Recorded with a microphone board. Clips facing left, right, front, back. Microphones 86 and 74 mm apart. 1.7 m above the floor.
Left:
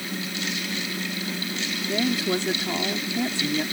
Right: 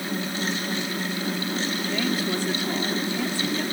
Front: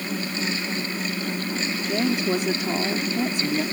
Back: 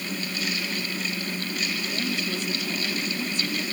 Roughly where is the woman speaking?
Ahead.